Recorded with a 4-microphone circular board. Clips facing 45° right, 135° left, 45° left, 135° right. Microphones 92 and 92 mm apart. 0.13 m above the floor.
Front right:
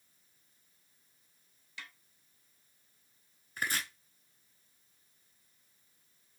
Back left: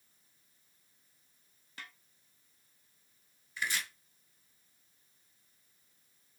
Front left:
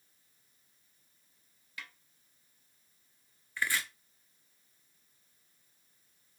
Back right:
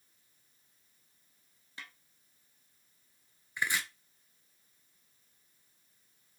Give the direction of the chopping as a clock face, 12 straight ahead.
2 o'clock.